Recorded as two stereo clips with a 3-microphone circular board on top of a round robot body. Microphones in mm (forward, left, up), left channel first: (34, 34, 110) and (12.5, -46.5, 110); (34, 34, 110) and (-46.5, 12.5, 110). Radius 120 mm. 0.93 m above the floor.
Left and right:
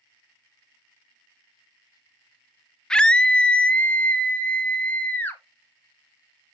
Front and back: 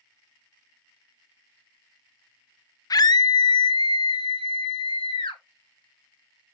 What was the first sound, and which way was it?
A scream, 5° right.